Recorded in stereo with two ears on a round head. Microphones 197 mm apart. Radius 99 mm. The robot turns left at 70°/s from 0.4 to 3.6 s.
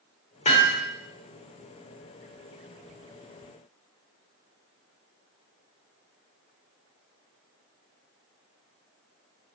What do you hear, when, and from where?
0.5 s hammering: 30° left (ahead or behind), 1.2 m; by 0.8 s 5° left (ahead or behind), 1.2 m